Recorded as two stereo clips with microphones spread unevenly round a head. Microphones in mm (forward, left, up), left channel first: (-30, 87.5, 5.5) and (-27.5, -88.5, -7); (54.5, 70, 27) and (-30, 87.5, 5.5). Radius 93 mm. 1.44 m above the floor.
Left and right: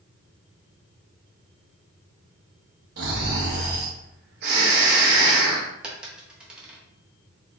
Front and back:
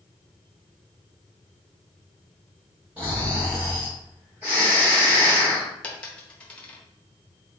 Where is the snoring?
115° right, 1.2 m.